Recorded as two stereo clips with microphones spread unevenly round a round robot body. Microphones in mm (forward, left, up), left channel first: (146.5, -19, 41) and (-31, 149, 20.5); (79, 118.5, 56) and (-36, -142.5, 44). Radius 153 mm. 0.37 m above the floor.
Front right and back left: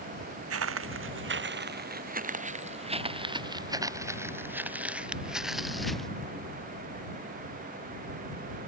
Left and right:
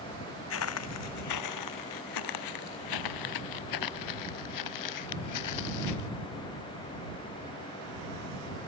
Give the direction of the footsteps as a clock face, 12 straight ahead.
8 o'clock.